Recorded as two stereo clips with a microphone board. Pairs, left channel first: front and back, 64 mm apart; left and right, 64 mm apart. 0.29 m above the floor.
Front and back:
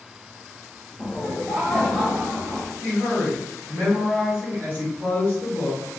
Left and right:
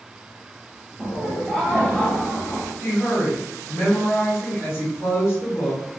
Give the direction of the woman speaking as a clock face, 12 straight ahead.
10 o'clock.